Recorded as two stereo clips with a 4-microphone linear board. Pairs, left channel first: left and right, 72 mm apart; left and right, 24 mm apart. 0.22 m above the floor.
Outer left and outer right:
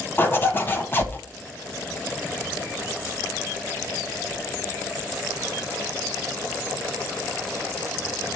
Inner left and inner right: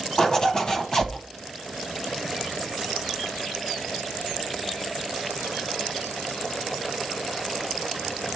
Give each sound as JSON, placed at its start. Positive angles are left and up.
{"t": 0.2, "sound": "a zipper", "side_deg": 30, "distance_m": 1.3}